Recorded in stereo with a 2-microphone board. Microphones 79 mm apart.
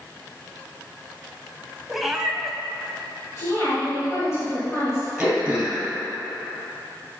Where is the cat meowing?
5° right (ahead or behind), 0.7 m.